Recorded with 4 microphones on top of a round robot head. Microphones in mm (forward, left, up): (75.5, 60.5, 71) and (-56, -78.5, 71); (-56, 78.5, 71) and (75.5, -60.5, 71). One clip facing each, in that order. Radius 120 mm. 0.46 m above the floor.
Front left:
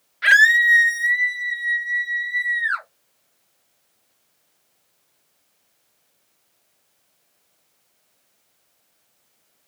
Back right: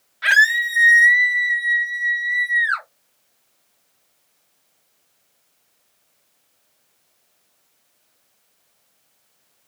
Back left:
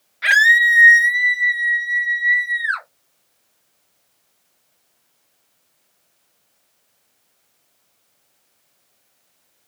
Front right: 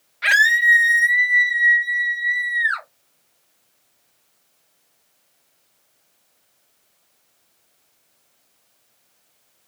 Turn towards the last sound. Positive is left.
turn(degrees=-160)